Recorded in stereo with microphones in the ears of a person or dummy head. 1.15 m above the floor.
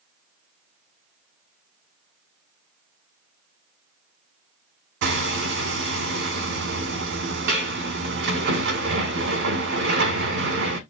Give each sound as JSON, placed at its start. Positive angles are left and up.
{"t": 5.0, "sound": "hammering", "side_deg": -55, "distance_m": 1.9}